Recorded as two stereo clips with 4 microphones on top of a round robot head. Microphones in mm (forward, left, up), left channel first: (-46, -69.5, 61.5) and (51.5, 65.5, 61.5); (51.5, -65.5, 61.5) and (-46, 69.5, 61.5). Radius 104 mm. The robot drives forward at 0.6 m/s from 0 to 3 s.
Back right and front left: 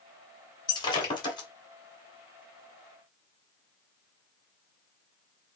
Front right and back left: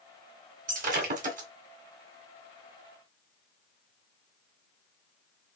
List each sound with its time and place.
0.7 s breaking glass: 165° left, 2.5 m; by 1.5 s 170° left, 3 m